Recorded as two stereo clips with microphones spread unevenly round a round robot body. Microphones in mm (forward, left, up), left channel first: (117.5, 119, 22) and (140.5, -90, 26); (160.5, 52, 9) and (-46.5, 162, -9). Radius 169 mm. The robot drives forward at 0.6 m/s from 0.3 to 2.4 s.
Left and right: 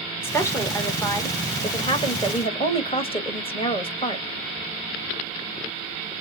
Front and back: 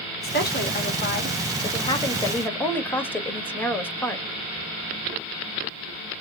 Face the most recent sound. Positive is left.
turn(degrees=55)